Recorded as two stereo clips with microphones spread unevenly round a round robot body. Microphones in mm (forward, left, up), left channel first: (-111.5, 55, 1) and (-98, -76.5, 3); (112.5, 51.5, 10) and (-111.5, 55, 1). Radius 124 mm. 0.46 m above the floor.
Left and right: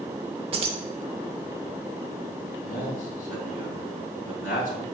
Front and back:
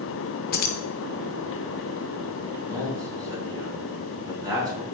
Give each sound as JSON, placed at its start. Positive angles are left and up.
{"t": 0.5, "sound": "keys jangling", "azimuth_deg": -40, "distance_m": 0.6}
{"t": 2.6, "sound": "a man speaking", "azimuth_deg": 85, "distance_m": 3.0}